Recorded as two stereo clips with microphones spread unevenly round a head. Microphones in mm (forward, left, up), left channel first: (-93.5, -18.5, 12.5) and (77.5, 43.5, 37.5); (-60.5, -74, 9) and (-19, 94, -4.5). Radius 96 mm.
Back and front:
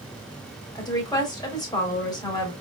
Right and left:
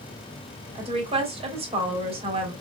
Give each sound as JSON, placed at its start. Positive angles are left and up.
{"t": 0.8, "sound": "a woman speaking", "azimuth_deg": 130, "distance_m": 2.5}